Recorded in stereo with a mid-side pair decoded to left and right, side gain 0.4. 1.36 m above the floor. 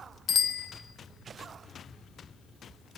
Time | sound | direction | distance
0.3 | a bicycle bell | 55° left | 2 m